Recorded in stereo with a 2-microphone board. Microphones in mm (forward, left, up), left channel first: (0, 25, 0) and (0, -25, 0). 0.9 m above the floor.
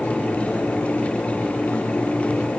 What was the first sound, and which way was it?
Only background noise.